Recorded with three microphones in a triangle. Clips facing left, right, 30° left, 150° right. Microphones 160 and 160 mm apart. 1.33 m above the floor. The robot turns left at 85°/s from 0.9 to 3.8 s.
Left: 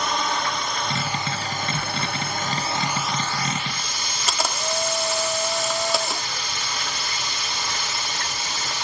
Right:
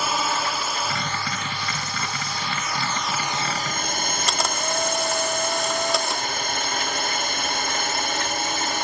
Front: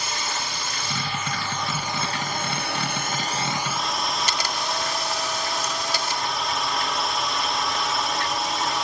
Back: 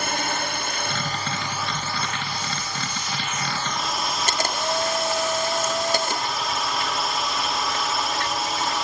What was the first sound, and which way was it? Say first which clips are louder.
A drone: even, back 4 dB; 175° right.